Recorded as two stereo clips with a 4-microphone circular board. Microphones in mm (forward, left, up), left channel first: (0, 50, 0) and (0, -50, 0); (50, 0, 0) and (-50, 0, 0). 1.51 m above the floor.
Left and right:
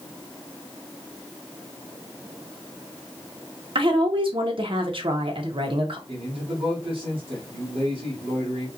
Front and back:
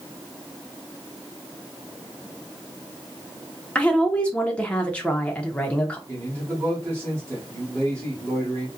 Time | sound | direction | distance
3.8 | a woman speaking | 75° right | 0.9 m
6.1 | a man speaking | 120° right | 2 m